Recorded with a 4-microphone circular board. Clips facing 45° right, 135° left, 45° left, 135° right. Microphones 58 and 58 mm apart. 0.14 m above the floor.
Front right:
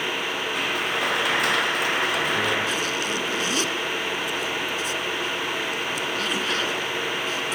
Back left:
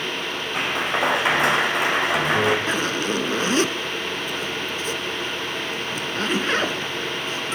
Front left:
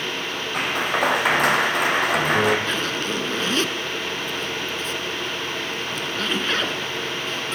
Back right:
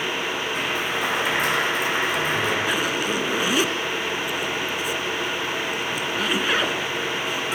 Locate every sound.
0.5 s a clap: 75° left, 5 m
2.7 s a zipper: 150° left, 1.5 m